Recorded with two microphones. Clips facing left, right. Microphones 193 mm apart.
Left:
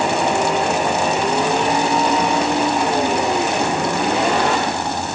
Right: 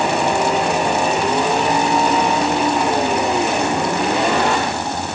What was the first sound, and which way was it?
Only background noise.